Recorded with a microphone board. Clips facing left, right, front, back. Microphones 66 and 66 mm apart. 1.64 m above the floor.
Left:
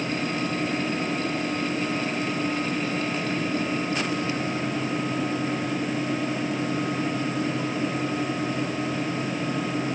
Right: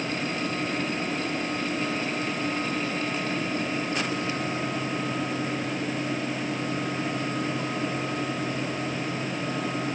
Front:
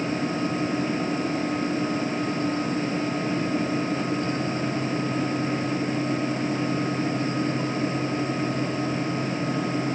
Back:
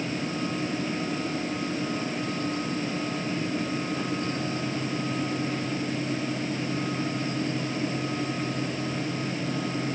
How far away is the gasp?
No gasp in this recording.